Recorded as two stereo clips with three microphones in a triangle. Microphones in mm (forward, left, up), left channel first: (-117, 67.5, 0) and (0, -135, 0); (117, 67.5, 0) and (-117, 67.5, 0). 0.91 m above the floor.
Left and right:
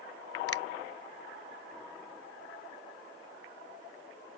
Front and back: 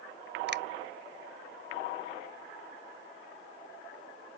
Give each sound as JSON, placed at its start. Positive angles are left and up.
{"t": 0.5, "sound": "a finger snap", "azimuth_deg": 140}